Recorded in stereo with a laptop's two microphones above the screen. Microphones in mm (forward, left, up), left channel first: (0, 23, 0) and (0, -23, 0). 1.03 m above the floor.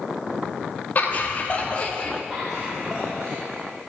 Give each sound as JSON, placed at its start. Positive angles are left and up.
{"t": 0.9, "sound": "laughter", "side_deg": 40, "distance_m": 2.0}
{"t": 2.3, "sound": "laughter", "side_deg": -5, "distance_m": 2.0}